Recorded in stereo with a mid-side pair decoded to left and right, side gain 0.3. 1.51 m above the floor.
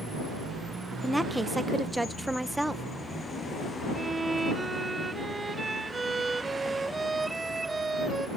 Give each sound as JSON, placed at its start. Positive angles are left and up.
{"t": 1.0, "sound": "a woman speaking", "azimuth_deg": -15}
{"t": 4.0, "sound": "a violin", "azimuth_deg": -40}